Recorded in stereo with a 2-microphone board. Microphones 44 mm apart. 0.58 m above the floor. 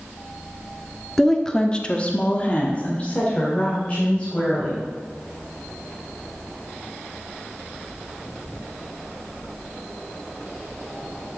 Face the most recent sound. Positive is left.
turn(degrees=25)  # may be behind; listen again after turning